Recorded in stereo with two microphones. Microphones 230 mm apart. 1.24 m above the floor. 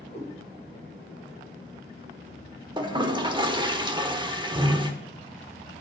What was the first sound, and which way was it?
A cat meowing, 30° left (ahead or behind).